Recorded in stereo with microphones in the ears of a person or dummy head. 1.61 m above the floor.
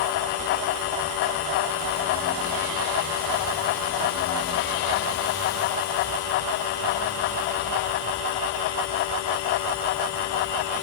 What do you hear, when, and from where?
Only background noise.